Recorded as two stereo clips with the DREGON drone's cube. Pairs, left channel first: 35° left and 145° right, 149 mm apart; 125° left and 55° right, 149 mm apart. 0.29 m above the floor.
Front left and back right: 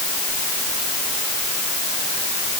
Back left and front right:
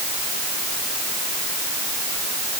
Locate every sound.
Only background noise.